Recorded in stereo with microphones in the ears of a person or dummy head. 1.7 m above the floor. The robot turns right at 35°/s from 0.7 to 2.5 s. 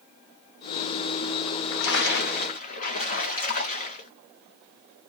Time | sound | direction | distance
1.5 | a splash | 100° left | 0.8 m